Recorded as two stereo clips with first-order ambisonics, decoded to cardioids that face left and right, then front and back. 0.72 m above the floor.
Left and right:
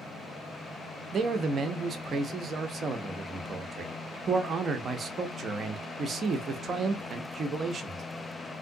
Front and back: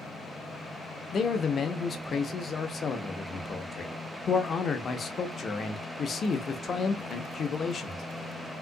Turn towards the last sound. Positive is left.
turn(degrees=-40)